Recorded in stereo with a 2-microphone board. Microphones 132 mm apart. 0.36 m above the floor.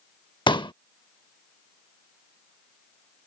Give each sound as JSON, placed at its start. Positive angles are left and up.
{"t": 0.5, "sound": "a pop", "side_deg": 35}